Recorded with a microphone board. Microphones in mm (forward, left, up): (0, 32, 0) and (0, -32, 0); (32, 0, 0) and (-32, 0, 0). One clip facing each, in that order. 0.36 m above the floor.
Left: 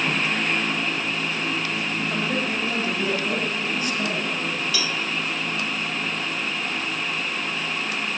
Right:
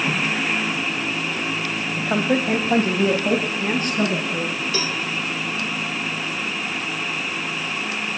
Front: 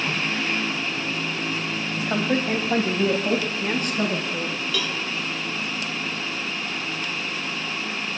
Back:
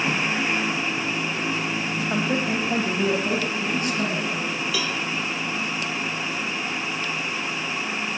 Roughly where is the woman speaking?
Right.